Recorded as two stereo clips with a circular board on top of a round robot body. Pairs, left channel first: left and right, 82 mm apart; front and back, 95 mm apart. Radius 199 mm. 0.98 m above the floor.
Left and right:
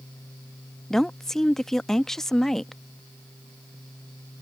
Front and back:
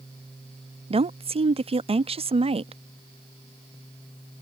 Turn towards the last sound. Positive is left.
turn(degrees=175)